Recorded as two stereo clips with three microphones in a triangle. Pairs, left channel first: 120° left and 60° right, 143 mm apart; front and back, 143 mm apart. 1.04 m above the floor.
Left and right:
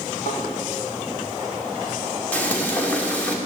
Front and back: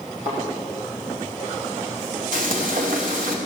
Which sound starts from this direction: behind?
Frying, at 2.3 s.